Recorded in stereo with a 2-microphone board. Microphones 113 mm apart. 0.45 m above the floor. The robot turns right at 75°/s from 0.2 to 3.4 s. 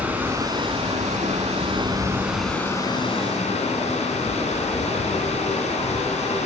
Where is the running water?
165° right, 1.3 m; by 6.5 s 75° left, 1.3 m.